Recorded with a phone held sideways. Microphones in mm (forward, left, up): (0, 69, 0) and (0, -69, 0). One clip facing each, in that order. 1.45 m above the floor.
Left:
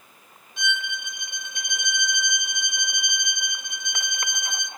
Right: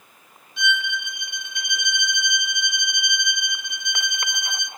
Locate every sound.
0.6 s a violin: 45° left (ahead or behind), 2.5 m